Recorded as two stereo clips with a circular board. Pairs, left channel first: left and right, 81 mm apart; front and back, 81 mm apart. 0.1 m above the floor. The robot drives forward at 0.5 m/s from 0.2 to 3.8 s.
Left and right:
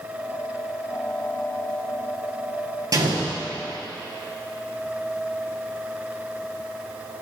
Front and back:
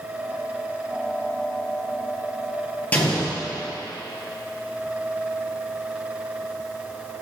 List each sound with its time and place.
2.9 s an explosion: 65° right, 1.4 m; by 3.4 s 75° right, 1.4 m